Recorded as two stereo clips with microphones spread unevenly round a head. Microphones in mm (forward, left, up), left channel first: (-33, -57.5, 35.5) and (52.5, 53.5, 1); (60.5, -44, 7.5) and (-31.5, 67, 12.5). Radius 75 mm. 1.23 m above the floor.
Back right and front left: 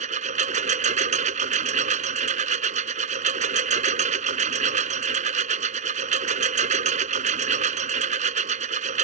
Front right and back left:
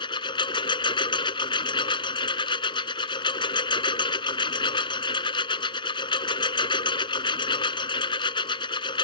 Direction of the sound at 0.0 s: 10° left.